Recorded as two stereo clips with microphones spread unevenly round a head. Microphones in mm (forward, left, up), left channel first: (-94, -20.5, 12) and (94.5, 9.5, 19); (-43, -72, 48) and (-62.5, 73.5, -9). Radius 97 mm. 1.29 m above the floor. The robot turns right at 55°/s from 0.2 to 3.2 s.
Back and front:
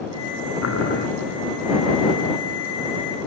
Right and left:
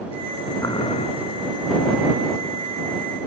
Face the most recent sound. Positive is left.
turn(degrees=-5)